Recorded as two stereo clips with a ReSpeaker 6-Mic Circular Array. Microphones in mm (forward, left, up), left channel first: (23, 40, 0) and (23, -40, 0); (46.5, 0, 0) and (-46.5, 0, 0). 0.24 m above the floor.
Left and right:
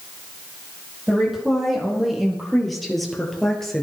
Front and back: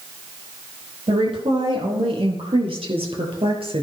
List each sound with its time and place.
1.1 s a woman speaking: 175° right, 7.5 m; by 3.8 s 175° left, 4 m